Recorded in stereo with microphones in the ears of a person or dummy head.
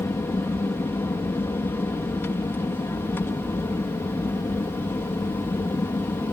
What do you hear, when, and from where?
0.0 s an aircraft: 10° left (ahead or behind)